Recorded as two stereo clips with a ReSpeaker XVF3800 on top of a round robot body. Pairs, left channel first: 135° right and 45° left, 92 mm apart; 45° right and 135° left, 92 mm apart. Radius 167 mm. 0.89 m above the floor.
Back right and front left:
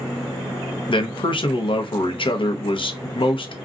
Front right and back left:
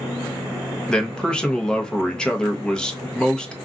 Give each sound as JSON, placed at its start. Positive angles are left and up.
{"t": 0.9, "sound": "a man speaking", "azimuth_deg": -125, "distance_m": 0.9}